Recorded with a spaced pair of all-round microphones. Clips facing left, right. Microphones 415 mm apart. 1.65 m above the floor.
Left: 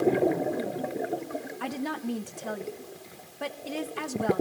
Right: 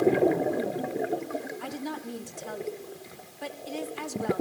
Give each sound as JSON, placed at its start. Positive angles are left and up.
{"t": 1.6, "sound": "a woman speaking", "side_deg": 75, "distance_m": 1.7}